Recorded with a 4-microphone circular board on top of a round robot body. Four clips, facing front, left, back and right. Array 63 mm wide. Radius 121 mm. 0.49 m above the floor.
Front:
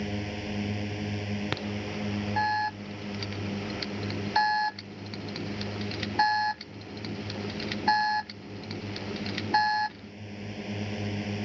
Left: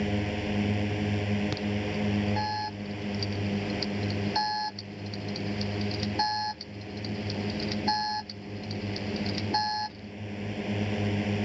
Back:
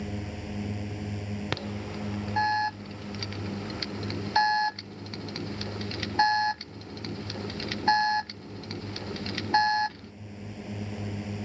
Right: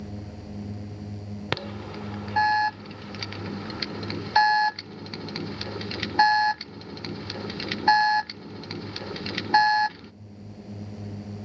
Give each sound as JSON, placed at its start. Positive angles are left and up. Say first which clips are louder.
{"t": 0.0, "sound": "a drone", "louder": "left 9 dB, front 3 dB", "azimuth_deg": 75}
{"t": 1.5, "sound": "an alarm", "louder": "left 2 dB, front 1 dB", "azimuth_deg": -90}